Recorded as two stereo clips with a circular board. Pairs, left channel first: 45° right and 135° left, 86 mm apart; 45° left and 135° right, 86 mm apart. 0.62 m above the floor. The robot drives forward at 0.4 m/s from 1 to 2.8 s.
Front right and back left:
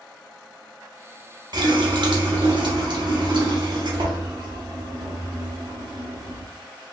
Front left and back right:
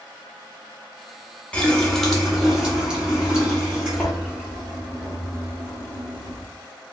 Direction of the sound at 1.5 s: 120° left.